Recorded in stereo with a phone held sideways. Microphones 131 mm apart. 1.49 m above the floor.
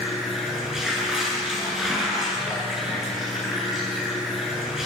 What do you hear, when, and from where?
0.0 s running water: 5° right (ahead or behind), 9.5 m